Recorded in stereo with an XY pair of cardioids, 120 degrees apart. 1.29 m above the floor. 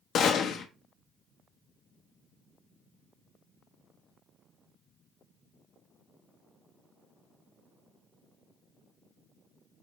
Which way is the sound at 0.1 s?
60° left.